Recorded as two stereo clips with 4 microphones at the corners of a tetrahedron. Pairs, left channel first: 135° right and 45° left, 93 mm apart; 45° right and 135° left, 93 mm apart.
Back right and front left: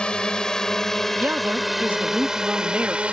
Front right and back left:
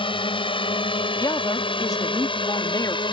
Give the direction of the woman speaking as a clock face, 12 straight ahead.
1 o'clock.